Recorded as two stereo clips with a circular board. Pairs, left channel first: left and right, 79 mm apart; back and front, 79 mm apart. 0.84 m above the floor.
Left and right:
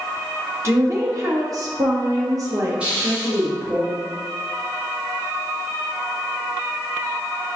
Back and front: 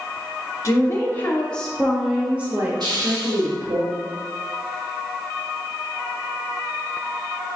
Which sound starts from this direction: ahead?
A hiss, at 2.8 s.